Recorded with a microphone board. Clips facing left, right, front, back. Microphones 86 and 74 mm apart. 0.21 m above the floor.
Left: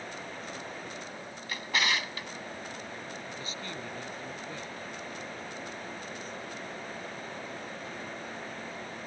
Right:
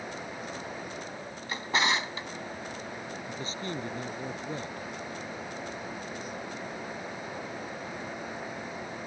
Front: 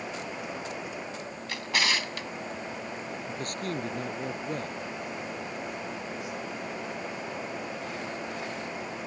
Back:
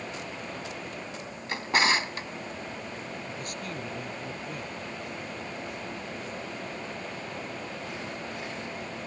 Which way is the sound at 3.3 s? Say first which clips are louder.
Right 4 dB, front 3 dB; 35° right.